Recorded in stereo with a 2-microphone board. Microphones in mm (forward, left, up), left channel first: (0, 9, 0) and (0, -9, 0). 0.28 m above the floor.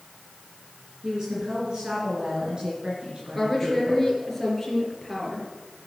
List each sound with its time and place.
1.0 s a woman speaking: 40° right (ahead or behind), 5 m; by 4.1 s 65° right (ahead or behind), 4.5 m
3.4 s a woman speaking: 10° left (ahead or behind), 4.5 m